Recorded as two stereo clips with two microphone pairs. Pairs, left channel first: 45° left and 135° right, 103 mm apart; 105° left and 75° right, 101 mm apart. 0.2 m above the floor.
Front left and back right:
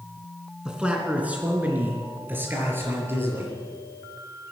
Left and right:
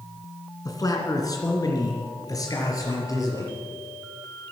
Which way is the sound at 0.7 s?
145° left.